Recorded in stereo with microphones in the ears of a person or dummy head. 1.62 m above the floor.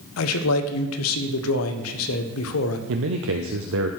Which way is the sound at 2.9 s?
65° right (ahead or behind).